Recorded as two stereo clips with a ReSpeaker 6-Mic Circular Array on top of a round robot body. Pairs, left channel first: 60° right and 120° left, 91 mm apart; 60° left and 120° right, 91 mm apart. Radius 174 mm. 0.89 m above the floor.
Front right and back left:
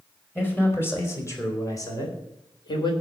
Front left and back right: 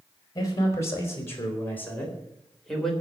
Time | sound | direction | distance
0.3 | a man speaking | 5° left | 5 m